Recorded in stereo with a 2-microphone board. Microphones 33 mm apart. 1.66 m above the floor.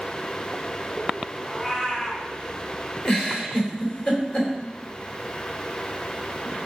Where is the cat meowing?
20° left (ahead or behind), 4 m.